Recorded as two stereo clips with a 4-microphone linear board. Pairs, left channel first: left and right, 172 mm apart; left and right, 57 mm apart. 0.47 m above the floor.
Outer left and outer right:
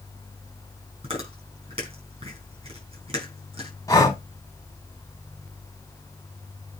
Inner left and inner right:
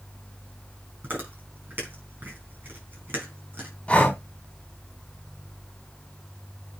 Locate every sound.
1.0 s chewing: 35° right (ahead or behind), 4.5 m
3.9 s breathing: 20° left (ahead or behind), 2.5 m